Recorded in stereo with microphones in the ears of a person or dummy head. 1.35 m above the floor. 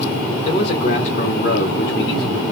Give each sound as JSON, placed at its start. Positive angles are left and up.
{"t": 0.5, "sound": "a man speaking", "side_deg": 40, "distance_m": 1.0}